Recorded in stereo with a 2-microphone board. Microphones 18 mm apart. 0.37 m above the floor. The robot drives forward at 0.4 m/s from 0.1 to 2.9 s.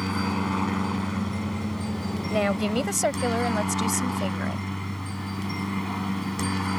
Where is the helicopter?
5° left (ahead or behind).